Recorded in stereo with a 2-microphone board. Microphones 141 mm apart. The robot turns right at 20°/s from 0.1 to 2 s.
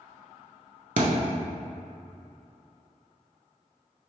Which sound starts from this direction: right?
A thud, at 1.0 s.